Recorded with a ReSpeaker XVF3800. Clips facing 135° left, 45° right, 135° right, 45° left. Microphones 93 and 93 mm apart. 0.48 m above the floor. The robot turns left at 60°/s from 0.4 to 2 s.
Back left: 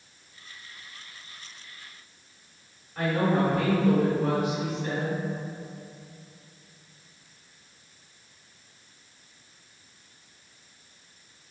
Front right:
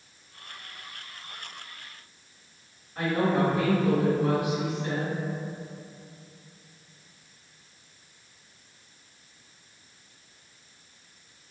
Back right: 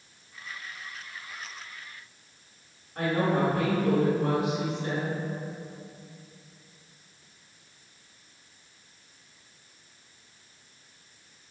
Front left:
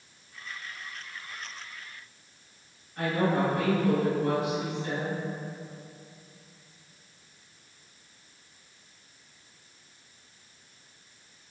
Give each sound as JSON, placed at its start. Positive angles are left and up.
{"t": 3.0, "sound": "a woman speaking", "azimuth_deg": -125, "distance_m": 1.8}